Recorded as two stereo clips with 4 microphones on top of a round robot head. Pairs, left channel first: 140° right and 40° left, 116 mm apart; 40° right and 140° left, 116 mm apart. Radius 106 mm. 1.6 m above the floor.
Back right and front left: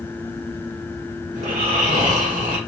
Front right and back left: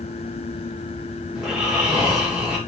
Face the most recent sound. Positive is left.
turn(degrees=55)